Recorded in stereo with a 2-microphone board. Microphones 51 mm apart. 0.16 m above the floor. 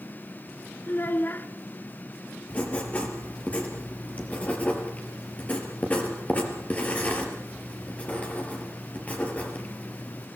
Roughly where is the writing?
Left.